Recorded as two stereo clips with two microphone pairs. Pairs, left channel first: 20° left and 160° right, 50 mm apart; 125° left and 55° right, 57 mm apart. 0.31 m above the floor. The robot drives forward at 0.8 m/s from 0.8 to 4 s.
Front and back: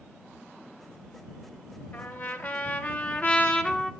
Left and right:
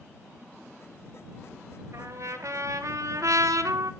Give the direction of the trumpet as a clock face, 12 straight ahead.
1 o'clock.